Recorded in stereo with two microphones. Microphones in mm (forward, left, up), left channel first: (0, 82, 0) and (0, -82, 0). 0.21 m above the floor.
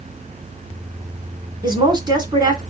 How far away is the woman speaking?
About 1.8 m.